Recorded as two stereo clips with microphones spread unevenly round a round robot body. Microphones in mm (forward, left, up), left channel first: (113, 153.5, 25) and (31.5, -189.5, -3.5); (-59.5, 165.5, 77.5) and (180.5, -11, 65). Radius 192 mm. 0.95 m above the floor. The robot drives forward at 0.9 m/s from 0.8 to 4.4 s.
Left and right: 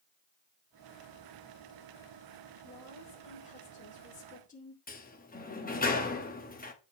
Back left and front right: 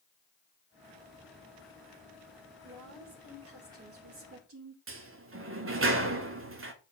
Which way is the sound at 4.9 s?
10° left.